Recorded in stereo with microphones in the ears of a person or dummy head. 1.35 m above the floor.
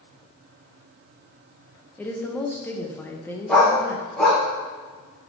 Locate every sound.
2.0 s a woman speaking: 10° left (ahead or behind), 0.9 m
3.5 s a dog barking: 5° right (ahead or behind), 1.6 m